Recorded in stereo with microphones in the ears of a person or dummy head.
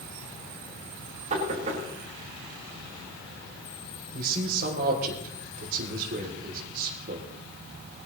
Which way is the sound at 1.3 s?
45° right (ahead or behind).